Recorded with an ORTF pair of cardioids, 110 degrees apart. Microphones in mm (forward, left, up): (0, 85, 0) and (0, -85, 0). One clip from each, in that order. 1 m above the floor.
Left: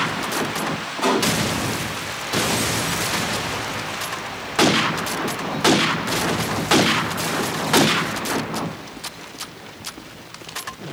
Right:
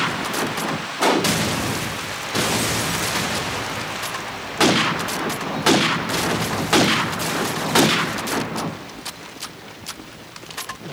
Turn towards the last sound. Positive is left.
turn(degrees=-60)